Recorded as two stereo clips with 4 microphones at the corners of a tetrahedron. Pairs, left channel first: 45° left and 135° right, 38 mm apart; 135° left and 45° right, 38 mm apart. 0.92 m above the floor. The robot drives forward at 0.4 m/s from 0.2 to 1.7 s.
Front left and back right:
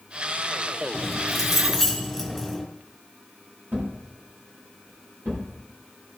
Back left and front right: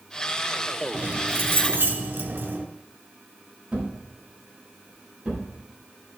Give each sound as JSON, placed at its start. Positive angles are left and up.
{"t": 0.9, "sound": "keys jangling", "azimuth_deg": -50, "distance_m": 2.5}
{"t": 3.7, "sound": "a thud", "azimuth_deg": -115, "distance_m": 6.0}